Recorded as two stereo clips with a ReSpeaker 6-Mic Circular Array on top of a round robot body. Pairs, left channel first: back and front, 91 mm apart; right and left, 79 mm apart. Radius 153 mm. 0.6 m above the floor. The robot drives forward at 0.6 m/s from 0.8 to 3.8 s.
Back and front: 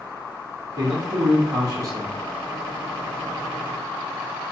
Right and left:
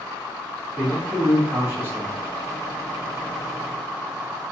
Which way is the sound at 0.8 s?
20° left.